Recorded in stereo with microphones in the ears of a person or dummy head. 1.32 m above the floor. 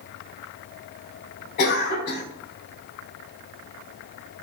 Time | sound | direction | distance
1.6 | a cough | 45° left (ahead or behind) | 5 m